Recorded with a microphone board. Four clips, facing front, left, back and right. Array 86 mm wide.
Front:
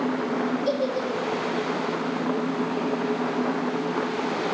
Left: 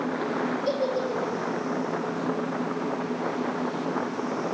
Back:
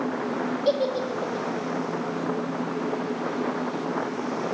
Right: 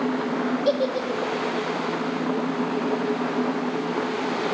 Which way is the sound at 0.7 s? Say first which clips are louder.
Right 4 dB, back 1 dB; 125° right.